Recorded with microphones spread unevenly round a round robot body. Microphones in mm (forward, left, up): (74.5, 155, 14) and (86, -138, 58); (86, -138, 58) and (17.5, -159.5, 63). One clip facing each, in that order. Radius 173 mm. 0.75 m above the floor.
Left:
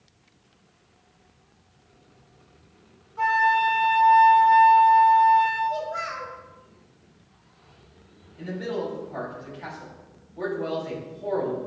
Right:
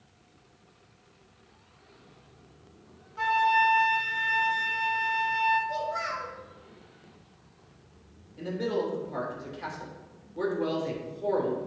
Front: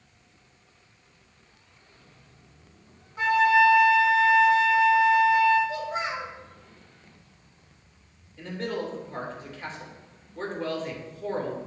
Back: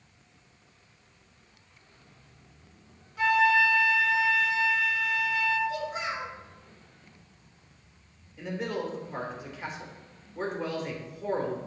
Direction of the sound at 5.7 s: 35° right.